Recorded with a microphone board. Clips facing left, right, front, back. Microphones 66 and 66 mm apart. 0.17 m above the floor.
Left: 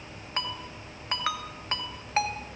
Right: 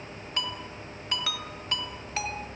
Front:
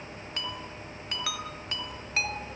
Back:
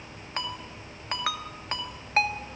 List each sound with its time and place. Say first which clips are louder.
0.4 s a ringtone: even, back 3 dB; 135° left, 1.7 m